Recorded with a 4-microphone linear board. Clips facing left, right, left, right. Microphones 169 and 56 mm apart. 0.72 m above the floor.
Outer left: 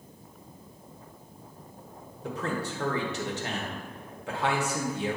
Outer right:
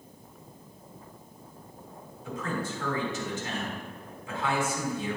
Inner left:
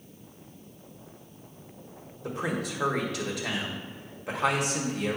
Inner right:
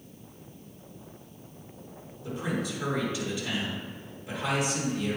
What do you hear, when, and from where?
2.2 s a man speaking: 70° left (ahead or behind), 1.5 m